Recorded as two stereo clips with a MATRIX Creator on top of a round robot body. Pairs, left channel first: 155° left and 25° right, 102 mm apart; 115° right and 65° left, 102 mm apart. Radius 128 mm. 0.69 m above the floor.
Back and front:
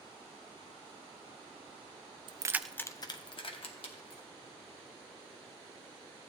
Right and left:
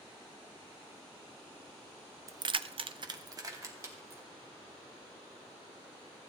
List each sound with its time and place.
2.3 s keys jangling: 10° left, 0.5 m; by 4.3 s 130° left, 1.9 m